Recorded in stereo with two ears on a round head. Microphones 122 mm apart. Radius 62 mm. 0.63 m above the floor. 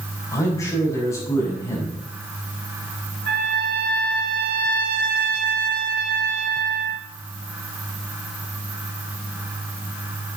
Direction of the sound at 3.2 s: 85° right.